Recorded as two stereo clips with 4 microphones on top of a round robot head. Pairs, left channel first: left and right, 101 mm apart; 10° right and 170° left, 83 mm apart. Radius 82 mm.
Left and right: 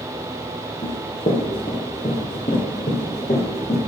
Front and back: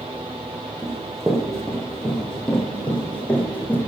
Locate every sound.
0.8 s running footsteps: 95° left, 2 m; by 3.8 s 60° left, 3.5 m